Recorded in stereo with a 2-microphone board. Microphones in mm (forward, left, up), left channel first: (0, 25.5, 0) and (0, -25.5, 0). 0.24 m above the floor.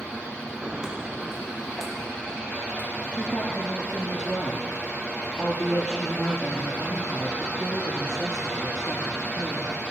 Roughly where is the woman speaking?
Centre.